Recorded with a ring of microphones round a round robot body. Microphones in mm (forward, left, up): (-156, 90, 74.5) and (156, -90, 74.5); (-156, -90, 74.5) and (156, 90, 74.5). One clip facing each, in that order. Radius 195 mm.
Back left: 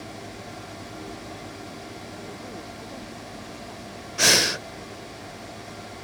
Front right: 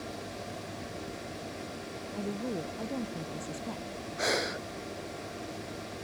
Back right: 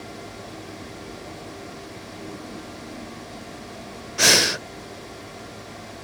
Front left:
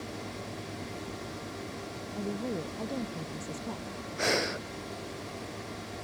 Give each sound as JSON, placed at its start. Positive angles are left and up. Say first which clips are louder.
{"t": 2.1, "sound": "a woman speaking", "louder": "front right 9 dB, front left 5 dB", "azimuth_deg": 5}
{"t": 4.2, "sound": "breathing", "louder": "back left 5 dB, back right 6 dB", "azimuth_deg": 180}